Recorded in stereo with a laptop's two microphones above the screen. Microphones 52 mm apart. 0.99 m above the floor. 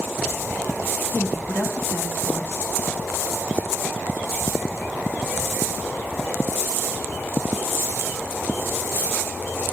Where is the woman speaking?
55° left (ahead or behind), 1.3 m.